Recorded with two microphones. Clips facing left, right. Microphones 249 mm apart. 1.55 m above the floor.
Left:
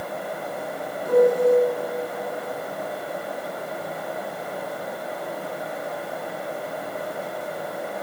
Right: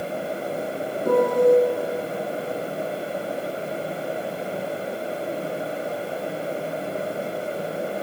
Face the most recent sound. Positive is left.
turn(degrees=-70)  # may be behind; listen again after turning